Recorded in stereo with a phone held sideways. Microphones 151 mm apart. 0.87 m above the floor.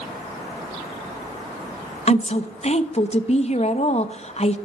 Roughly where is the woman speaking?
Left.